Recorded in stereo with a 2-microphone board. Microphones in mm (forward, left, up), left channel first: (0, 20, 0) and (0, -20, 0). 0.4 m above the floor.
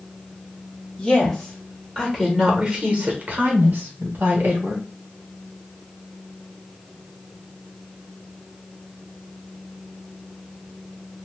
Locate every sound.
1.0 s a woman speaking: 15° left (ahead or behind), 1.3 m; by 4.8 s 55° right (ahead or behind), 1.5 m